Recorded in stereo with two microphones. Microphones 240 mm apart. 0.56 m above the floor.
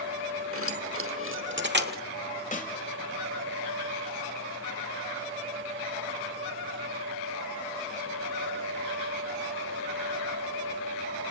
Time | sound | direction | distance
0.5 | keys jangling | 65° right (ahead or behind) | 1.2 m
2.5 | a snare drum | 35° left (ahead or behind) | 1.1 m